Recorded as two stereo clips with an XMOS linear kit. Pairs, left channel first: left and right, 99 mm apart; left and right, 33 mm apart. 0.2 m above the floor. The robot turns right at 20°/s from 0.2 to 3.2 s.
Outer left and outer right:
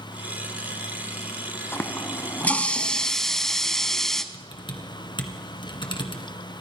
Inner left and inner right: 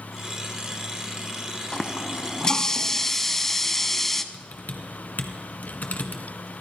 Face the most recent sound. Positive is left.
turn(degrees=55)  # may be behind; listen again after turning